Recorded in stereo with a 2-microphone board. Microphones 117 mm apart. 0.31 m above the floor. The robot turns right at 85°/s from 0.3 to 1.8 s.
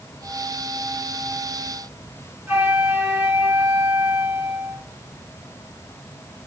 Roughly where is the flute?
Centre.